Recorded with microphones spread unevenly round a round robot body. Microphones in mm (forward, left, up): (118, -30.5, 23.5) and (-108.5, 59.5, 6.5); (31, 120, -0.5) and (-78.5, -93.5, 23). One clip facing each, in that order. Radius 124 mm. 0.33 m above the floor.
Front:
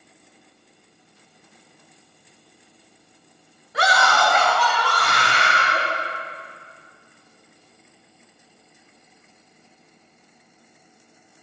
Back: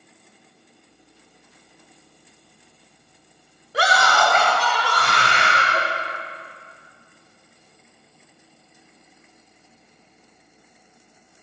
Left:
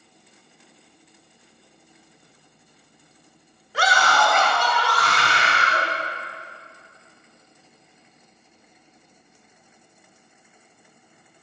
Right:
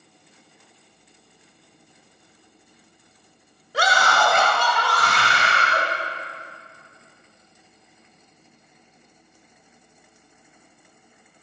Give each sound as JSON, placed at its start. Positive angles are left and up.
{"t": 3.7, "sound": "a scream", "azimuth_deg": -160, "distance_m": 2.0}